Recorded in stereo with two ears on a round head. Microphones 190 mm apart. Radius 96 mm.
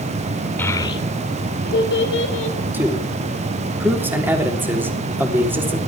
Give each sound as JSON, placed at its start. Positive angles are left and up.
{"t": 0.6, "sound": "a child speaking", "side_deg": 10, "distance_m": 2.0}
{"t": 2.7, "sound": "a man speaking", "side_deg": -10, "distance_m": 3.0}